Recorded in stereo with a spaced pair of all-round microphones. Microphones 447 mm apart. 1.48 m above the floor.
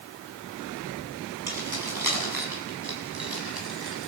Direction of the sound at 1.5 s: 50° right (ahead or behind).